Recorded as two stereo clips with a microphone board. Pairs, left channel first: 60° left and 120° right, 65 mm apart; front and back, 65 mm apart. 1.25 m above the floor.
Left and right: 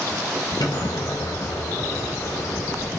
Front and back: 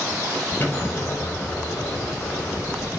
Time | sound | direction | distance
0.6 | an explosion | 60° left | 4.5 m